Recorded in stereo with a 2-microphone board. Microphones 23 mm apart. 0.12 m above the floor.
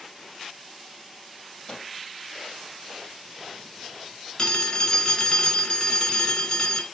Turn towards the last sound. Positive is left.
turn(degrees=40)  # may be behind; listen again after turning